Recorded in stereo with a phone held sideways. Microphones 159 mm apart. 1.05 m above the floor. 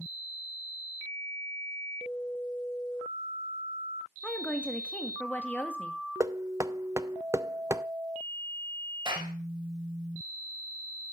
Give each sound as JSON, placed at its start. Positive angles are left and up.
{"t": 4.2, "sound": "a woman speaking", "side_deg": 10, "distance_m": 1.7}
{"t": 6.2, "sound": "knocking", "side_deg": -20, "distance_m": 0.5}
{"t": 9.1, "sound": "a clap", "side_deg": -30, "distance_m": 5.0}